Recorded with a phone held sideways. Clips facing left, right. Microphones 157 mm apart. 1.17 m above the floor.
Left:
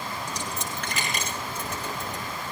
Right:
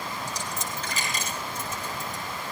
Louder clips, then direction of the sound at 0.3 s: Left 1 dB; 65° left (ahead or behind).